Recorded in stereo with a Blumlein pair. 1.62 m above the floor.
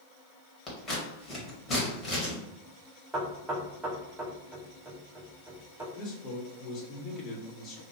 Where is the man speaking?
30° left, 1.4 m.